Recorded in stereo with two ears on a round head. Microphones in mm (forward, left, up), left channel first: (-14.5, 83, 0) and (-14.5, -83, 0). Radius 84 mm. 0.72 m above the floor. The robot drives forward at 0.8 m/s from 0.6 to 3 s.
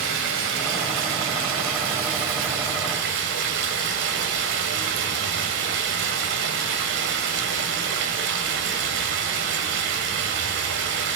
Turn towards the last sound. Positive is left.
turn(degrees=-75)  # may be behind; listen again after turning